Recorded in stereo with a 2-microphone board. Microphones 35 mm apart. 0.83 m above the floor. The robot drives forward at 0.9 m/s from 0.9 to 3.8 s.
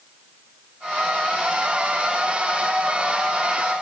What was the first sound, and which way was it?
Only background noise.